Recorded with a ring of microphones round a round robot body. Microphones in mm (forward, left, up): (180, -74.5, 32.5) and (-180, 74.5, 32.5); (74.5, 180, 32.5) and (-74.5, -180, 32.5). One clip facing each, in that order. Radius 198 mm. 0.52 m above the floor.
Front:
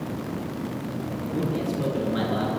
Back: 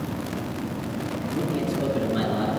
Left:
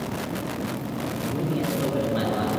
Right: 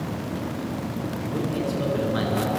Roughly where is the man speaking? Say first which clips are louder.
Even, even; right.